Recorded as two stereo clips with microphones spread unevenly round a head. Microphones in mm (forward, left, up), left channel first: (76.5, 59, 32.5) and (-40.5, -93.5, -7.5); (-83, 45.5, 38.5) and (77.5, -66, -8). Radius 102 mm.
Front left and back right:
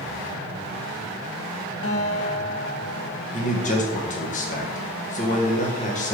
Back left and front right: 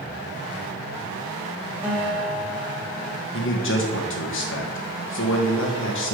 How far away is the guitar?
About 1.6 m.